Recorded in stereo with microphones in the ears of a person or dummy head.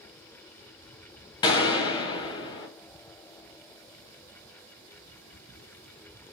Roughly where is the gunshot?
Left.